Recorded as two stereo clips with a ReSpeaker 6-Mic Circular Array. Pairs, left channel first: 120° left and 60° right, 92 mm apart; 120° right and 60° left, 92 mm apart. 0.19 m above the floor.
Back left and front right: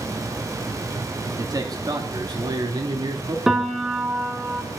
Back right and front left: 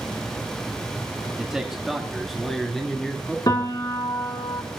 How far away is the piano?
About 2 m.